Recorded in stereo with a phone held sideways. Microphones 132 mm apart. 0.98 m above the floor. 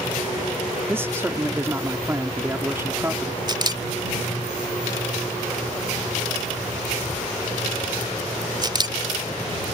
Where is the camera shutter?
30° right (ahead or behind).